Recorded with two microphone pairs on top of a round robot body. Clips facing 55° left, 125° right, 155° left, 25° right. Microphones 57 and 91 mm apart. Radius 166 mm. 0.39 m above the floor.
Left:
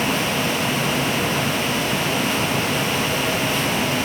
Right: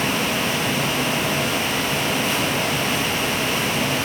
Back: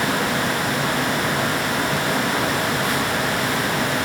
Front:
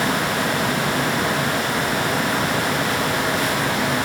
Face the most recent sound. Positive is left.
No sound to turn to.